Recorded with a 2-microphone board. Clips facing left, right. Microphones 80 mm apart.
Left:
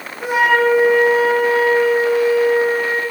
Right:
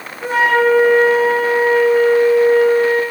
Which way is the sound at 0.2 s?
10° left (ahead or behind).